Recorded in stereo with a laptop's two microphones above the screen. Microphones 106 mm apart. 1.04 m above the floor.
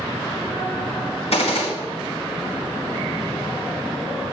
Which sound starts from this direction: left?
A gunshot, at 1.3 s.